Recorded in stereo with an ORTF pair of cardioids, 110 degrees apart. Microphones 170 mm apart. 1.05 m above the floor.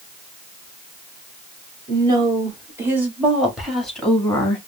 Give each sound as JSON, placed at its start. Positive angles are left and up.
{"t": 1.9, "sound": "a woman speaking", "azimuth_deg": -25, "distance_m": 2.0}